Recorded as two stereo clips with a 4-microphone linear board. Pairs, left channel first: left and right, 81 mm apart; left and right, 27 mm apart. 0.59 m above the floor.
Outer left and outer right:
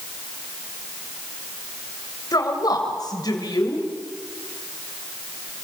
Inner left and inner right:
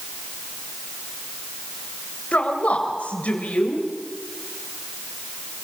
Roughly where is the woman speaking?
Left.